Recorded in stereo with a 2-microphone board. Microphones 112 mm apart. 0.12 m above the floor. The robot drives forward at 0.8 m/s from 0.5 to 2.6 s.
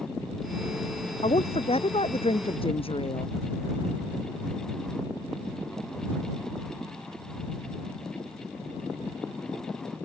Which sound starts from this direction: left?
A woman speaking, at 1.2 s.